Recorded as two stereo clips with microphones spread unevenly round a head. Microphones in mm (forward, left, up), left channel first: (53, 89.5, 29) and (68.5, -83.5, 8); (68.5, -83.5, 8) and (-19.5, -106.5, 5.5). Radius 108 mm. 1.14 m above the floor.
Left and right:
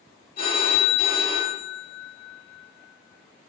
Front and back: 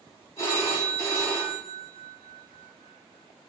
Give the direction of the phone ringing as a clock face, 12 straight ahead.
10 o'clock.